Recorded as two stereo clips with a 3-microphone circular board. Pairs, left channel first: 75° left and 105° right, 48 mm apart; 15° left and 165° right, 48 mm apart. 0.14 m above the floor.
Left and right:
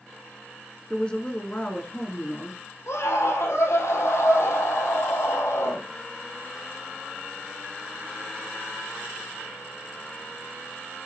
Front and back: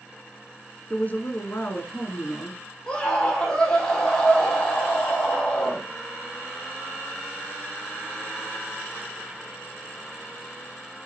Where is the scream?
85° left, 6 m.